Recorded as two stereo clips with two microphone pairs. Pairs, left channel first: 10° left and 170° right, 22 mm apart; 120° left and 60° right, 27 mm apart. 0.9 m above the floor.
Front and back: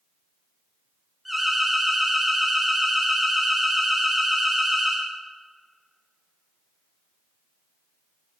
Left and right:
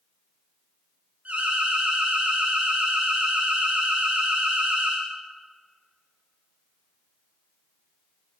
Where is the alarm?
85° right, 4 m.